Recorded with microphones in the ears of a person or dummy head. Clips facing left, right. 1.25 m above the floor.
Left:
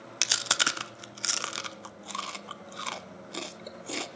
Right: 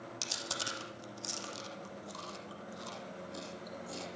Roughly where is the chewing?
Left.